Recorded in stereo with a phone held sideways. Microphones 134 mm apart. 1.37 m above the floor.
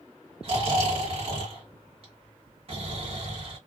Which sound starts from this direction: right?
Snoring, at 0.4 s.